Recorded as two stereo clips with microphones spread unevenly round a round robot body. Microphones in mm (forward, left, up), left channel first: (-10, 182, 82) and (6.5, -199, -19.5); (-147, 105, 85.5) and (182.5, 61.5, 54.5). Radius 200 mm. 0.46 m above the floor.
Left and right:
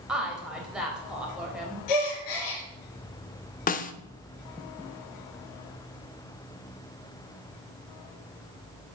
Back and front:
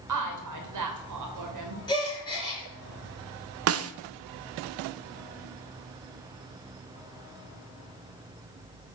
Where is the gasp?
95° left, 4 m.